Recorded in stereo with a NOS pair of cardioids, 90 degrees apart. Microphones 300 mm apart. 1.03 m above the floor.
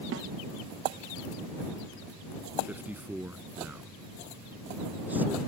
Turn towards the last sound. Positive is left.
turn(degrees=-5)